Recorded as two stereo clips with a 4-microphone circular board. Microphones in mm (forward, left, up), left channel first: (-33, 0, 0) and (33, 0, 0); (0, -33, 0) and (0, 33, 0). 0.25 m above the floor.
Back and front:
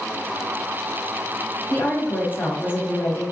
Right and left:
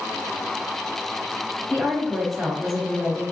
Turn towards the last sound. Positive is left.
turn(degrees=175)